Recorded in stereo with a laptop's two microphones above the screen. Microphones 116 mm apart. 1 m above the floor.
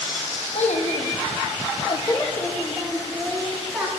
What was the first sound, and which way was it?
A child speaking, 75° left (ahead or behind).